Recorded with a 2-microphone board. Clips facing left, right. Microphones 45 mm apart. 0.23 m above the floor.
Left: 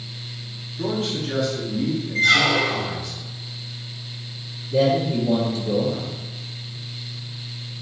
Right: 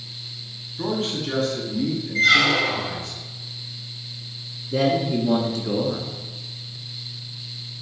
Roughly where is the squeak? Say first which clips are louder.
Even; centre.